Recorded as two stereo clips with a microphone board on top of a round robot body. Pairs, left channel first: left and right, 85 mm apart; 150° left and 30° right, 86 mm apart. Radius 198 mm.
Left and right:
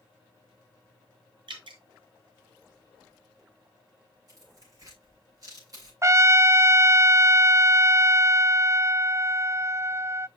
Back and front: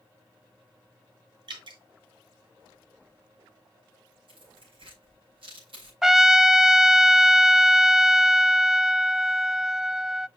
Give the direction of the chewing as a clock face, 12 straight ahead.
I don't hear chewing.